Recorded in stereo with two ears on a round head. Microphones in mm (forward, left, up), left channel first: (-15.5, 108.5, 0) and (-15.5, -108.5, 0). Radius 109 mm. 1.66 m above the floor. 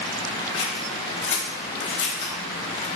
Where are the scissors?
50° left (ahead or behind), 1.8 m.